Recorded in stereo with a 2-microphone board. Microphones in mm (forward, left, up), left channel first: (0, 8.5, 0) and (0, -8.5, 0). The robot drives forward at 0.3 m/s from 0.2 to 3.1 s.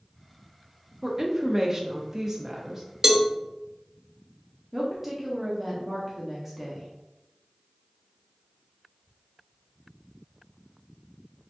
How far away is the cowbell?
About 0.5 m.